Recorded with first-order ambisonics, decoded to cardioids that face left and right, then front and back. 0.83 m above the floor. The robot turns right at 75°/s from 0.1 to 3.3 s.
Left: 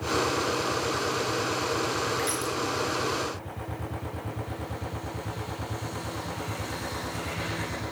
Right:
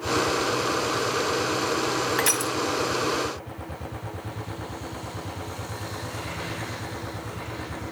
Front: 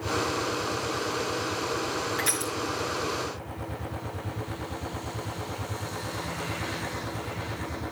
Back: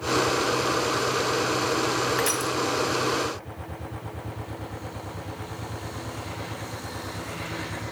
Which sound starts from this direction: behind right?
Crushing, at 2.2 s.